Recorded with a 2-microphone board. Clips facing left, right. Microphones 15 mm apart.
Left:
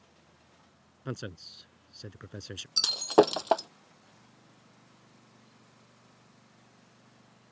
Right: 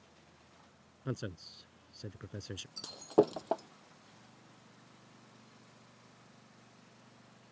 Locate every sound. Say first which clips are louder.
1.1 s a man speaking: left 2 dB; 20° left (ahead or behind)
2.8 s breaking glass: left 7 dB; 55° left (ahead or behind)